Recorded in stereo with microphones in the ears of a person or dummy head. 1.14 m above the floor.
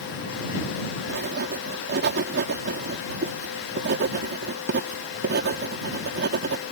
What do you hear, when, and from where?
1.1 s writing: 60° right (ahead or behind)